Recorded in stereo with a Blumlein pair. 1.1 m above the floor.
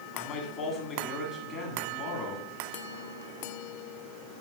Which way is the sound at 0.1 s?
25° left.